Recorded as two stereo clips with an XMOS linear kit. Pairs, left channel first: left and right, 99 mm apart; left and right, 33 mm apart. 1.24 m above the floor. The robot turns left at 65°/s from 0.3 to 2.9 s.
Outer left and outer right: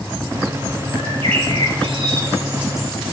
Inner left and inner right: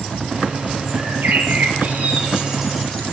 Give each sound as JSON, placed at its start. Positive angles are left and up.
{"t": 1.0, "sound": "a bird", "azimuth_deg": -60, "distance_m": 5.0}